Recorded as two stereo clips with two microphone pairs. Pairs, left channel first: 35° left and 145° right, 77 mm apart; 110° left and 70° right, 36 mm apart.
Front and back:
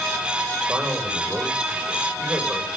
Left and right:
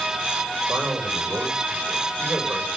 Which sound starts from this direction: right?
A man speaking, at 0.7 s.